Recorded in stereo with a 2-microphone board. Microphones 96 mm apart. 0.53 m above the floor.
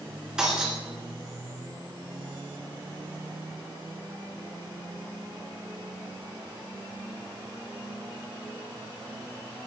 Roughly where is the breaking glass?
Centre.